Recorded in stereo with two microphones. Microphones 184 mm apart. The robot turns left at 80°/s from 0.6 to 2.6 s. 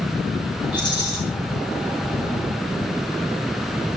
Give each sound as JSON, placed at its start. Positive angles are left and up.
{"t": 0.7, "sound": "a rattle", "azimuth_deg": 95, "distance_m": 9.0}